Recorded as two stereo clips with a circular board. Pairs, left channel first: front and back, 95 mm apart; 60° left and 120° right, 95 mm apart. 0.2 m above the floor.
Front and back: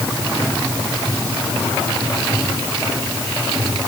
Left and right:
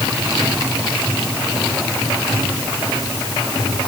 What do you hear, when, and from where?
Only background noise.